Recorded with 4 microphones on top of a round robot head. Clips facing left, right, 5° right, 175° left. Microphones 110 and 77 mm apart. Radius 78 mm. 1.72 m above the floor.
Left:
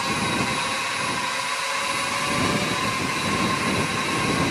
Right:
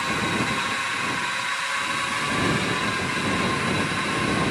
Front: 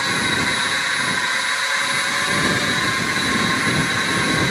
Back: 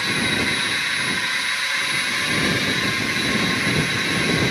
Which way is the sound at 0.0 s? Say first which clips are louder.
Left 1 dB, front 2 dB; 45° left.